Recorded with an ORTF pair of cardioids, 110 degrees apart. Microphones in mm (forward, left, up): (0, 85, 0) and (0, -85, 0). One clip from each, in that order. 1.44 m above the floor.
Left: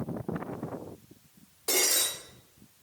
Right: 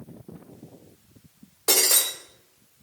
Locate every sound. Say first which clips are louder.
1.7 s breaking glass: right 5 dB; 45° right, 5.5 m